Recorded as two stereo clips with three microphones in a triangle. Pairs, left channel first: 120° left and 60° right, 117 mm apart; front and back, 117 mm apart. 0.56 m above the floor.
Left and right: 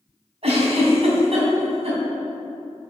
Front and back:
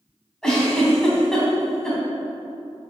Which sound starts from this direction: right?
A giggle, at 0.4 s.